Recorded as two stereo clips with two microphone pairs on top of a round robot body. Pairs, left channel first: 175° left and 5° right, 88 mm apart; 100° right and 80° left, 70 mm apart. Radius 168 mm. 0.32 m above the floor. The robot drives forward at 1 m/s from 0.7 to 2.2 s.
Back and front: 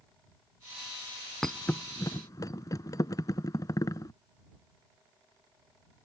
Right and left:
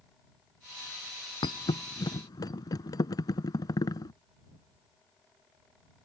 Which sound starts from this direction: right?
A thud, at 1.4 s.